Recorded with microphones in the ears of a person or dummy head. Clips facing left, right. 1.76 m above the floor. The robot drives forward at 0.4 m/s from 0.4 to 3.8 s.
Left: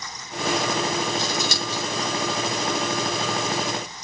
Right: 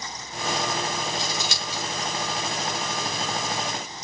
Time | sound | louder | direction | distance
1.2 | scissors | left 5 dB | 85° left | 5 m